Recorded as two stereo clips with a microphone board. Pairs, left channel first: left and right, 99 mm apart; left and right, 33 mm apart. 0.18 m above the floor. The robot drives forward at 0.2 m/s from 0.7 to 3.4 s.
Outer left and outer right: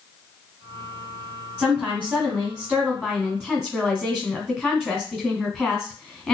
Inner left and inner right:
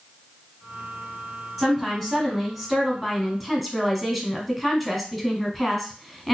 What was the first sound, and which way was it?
A woman speaking, 15° left (ahead or behind).